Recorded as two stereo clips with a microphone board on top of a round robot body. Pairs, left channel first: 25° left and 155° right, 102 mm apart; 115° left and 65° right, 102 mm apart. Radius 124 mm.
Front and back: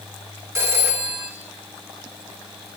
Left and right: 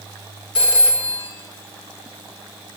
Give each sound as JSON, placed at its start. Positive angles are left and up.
{"t": 0.6, "sound": "a phone ringing", "azimuth_deg": 140, "distance_m": 5.0}